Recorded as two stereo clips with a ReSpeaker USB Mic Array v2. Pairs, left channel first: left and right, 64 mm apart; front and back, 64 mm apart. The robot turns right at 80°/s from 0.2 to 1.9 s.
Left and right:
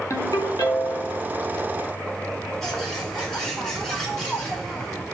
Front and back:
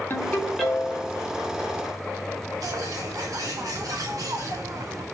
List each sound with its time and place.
0.1 s a ringtone: 50° left, 3.5 m; by 1.2 s 130° left, 3.5 m
2.6 s a bird: 170° left, 3.5 m